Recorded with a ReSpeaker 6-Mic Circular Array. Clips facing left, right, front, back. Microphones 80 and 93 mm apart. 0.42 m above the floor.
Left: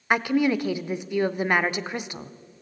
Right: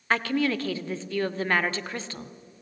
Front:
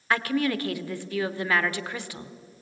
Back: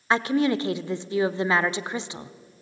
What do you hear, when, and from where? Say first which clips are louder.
0.1 s a woman speaking: left 3 dB, back 3 dB; 145° left, 0.8 m